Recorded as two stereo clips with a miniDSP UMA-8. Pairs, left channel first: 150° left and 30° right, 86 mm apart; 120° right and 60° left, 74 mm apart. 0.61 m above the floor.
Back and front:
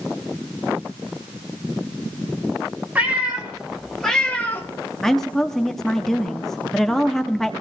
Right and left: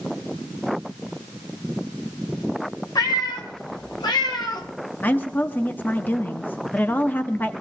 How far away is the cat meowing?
About 3 m.